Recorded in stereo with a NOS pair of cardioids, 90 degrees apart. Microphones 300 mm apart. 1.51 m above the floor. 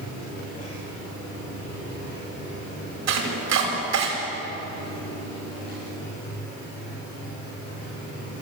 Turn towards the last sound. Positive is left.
turn(degrees=-65)